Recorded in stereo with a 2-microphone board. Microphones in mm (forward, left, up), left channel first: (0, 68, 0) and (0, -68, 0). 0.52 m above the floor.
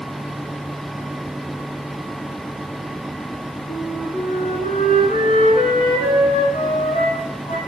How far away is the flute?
About 2 m.